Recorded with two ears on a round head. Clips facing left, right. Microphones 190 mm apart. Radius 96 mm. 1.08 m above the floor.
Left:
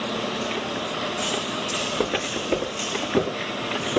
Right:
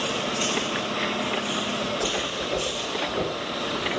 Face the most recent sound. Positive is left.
turn(degrees=75)  # may be behind; listen again after turning